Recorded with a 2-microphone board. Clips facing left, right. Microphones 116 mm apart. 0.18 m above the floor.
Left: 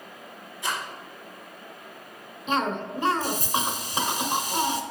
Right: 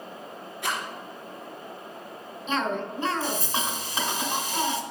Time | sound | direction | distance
0.6 | a rattle | 60° right (ahead or behind) | 2.5 m
2.5 | a cough | 15° left (ahead or behind) | 1.0 m